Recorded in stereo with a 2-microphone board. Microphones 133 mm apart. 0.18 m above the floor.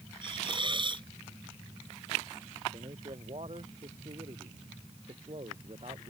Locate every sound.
0.2 s a hiss: 40° right (ahead or behind)
2.7 s a man speaking: 55° right (ahead or behind)